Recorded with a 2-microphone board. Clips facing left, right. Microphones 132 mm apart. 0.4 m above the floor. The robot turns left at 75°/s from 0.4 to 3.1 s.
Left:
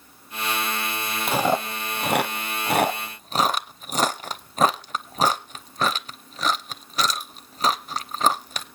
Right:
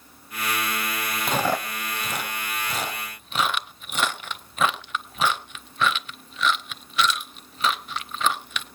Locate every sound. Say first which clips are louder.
1.3 s chewing: left 3 dB; 5° left (ahead or behind), 0.7 m; by 8.7 s 40° left (ahead or behind), 0.7 m